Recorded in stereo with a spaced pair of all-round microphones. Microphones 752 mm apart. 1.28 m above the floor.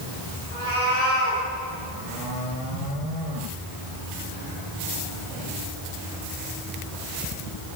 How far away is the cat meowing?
About 9 m.